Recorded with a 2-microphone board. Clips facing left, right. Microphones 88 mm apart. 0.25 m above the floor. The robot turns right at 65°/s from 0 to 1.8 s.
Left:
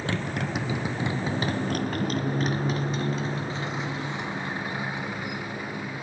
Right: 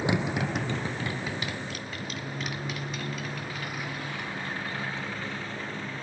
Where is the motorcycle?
20° right (ahead or behind); by 6.0 s 10° left (ahead or behind).